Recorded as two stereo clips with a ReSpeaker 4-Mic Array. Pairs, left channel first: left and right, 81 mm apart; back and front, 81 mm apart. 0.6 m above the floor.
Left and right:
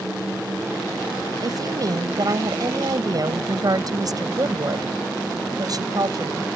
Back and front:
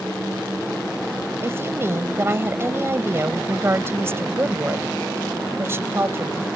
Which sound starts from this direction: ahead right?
A woman speaking, at 1.4 s.